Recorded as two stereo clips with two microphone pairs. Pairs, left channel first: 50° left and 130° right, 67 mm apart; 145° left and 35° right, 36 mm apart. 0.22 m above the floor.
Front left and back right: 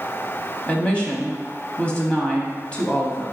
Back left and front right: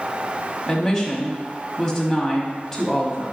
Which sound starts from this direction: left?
A woman speaking, at 0.7 s.